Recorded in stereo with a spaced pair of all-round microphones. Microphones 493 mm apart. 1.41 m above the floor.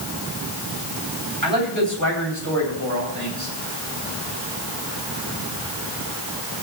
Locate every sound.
1.4 s a man speaking: 20° right (ahead or behind), 9 m; by 3.5 s 35° right (ahead or behind), 8.5 m